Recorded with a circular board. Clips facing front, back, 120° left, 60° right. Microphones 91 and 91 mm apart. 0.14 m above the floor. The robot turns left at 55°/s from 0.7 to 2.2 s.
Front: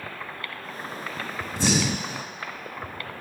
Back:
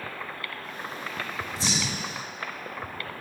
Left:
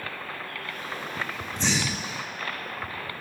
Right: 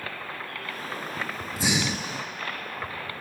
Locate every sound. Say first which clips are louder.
1.6 s breathing: front 9 dB, right 1 dB; 25° left, 0.5 m; by 2.2 s 10° right, 0.5 m